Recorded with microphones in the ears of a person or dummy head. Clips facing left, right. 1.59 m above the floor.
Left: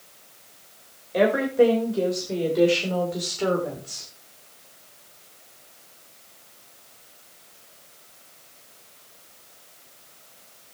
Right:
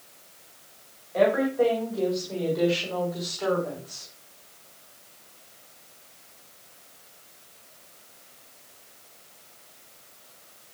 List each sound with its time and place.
1.1 s a woman speaking: 50° left (ahead or behind), 7 m; by 4.1 s 45° left (ahead or behind), 5 m